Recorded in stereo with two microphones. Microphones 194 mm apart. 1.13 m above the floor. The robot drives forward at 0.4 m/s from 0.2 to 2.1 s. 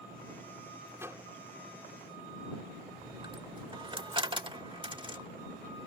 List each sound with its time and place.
1.0 s a microwave: 15° right (ahead or behind)
3.0 s a dropped coin: 25° right (ahead or behind)